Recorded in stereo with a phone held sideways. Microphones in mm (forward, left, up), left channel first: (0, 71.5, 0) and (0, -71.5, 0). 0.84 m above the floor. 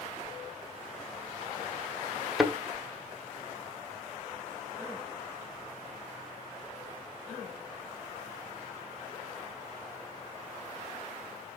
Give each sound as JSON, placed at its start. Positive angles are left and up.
{"t": 2.4, "sound": "a thud", "side_deg": 0, "distance_m": 1.6}